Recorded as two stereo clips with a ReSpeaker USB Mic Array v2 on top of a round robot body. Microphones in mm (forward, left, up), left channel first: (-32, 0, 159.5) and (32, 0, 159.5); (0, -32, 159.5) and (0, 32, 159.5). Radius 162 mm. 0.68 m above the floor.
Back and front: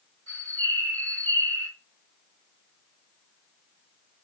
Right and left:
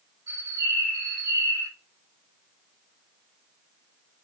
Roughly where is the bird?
Left.